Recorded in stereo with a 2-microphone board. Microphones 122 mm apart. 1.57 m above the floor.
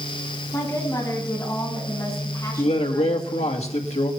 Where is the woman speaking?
30° left (ahead or behind), 10 m.